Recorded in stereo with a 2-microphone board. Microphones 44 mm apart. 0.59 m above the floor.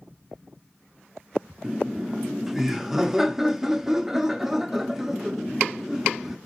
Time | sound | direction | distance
1.6 | laughter | 5° right (ahead or behind) | 0.6 m